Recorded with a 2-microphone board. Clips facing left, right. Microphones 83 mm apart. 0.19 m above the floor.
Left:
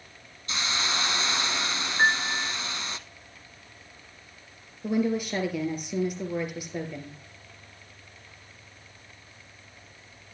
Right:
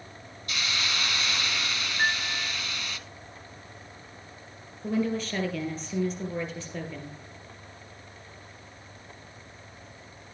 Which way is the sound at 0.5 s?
30° left (ahead or behind).